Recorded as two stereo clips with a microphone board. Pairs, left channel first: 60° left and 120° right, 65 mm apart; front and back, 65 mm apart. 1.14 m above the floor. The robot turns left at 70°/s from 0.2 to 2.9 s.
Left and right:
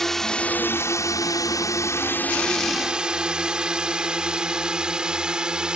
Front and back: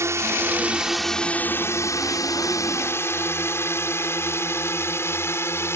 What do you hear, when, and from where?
0.0 s a drone: 145° left; by 5.8 s 45° right